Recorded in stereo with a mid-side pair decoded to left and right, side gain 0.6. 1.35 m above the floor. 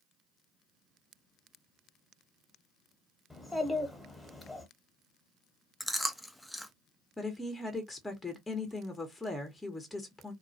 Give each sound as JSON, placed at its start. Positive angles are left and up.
{"t": 3.3, "sound": "a child speaking", "azimuth_deg": 10, "distance_m": 1.2}
{"t": 5.8, "sound": "chewing", "azimuth_deg": 0, "distance_m": 0.6}
{"t": 7.2, "sound": "a woman speaking", "azimuth_deg": 10, "distance_m": 0.9}